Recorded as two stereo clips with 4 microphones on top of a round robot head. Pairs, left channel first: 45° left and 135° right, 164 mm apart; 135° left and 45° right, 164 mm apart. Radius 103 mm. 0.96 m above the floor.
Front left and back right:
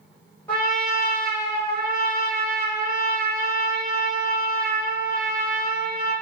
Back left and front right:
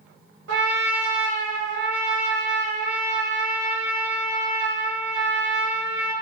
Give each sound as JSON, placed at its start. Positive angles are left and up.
{"t": 0.5, "sound": "a trumpet", "azimuth_deg": -35, "distance_m": 0.9}